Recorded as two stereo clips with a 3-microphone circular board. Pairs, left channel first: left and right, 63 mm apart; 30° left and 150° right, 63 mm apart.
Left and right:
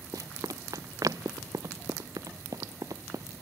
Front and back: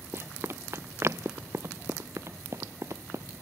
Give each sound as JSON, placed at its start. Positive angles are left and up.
{"t": 0.1, "sound": "running footsteps", "azimuth_deg": -100}